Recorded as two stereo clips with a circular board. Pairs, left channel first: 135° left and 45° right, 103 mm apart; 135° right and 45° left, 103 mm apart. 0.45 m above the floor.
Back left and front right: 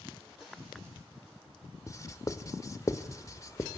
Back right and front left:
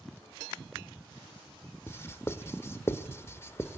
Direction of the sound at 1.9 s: 175° left.